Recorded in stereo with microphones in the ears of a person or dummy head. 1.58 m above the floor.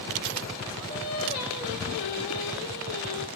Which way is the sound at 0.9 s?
55° left (ahead or behind).